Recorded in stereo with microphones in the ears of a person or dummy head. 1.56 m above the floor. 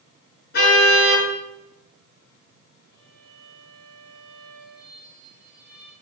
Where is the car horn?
50° left (ahead or behind), 8 m.